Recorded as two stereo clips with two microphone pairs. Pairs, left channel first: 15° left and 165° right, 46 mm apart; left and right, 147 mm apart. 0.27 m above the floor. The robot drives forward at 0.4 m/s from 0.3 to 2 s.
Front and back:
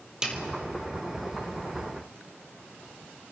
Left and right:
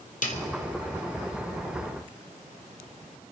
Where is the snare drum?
120° left, 1.6 m.